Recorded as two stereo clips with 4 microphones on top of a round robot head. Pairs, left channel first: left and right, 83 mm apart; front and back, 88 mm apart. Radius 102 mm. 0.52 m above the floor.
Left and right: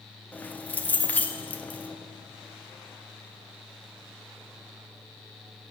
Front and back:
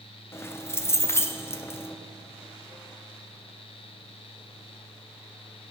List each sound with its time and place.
0.3 s keys jangling: 35° left, 0.7 m